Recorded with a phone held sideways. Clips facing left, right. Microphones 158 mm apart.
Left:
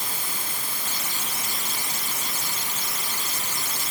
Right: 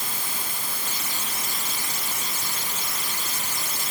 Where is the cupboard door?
I don't hear a cupboard door.